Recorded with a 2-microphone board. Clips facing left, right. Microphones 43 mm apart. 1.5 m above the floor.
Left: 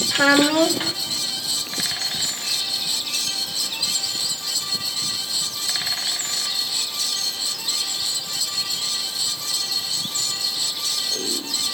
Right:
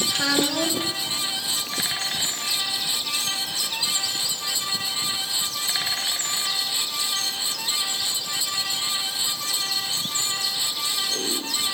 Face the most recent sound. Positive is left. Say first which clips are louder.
# left 9 dB
turn(degrees=40)  # may be behind; listen again after turning